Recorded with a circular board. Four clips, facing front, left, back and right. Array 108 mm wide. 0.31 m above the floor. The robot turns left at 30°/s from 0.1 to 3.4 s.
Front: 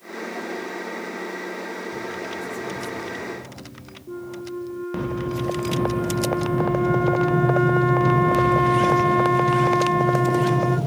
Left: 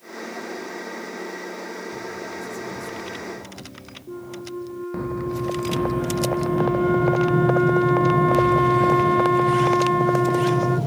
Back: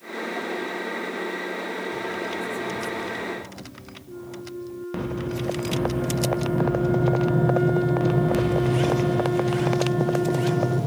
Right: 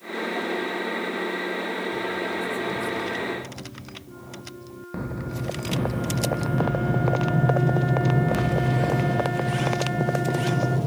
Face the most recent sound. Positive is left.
turn(degrees=40)